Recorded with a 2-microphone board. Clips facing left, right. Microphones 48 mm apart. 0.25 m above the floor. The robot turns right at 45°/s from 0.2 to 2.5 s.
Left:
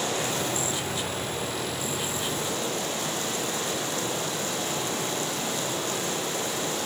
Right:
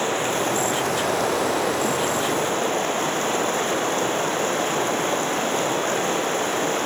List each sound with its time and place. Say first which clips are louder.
0.0 s running water: right 6 dB; 145° right, 4 m; by 6.9 s 40° right, 4 m